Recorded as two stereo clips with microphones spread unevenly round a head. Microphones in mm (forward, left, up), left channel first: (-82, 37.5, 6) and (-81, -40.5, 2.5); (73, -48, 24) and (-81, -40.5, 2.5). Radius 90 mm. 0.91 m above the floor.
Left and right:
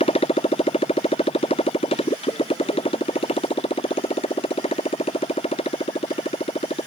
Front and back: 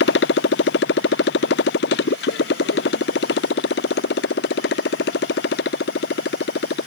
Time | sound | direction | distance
0.0 | a motorcycle | 35° left | ?